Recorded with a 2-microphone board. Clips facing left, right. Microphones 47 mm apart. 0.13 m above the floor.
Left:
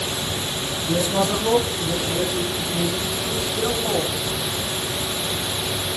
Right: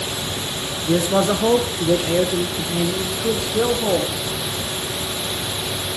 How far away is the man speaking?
About 1.8 m.